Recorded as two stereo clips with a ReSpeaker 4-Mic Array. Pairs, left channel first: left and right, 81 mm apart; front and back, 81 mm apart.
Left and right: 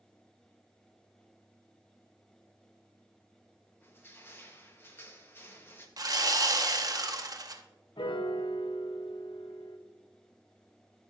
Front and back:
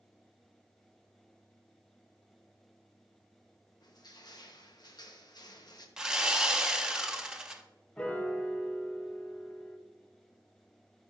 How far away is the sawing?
About 0.7 m.